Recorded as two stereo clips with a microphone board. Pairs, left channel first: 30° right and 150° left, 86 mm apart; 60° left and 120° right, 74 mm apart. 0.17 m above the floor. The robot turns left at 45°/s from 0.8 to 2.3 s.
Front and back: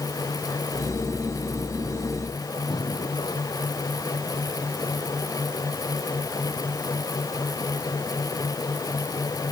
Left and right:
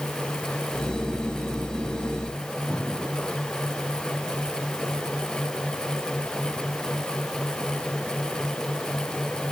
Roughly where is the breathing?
Ahead.